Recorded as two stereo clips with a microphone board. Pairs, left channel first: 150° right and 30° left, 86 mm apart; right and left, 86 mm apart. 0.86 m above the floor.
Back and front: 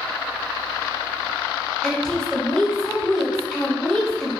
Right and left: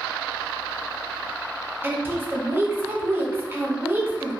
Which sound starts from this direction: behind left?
A woman speaking, at 1.8 s.